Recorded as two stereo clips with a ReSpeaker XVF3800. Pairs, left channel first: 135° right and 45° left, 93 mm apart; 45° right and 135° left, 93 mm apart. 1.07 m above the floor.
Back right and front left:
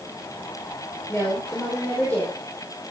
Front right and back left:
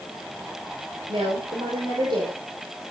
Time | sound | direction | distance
1.1 | a woman speaking | 160° left | 5 m